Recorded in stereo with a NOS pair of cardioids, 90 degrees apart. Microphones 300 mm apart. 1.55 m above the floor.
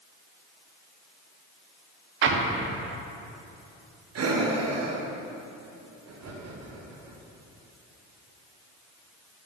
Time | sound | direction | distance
2.2 | an explosion | 45° right | 0.7 m
4.2 | breathing | 55° right | 1.1 m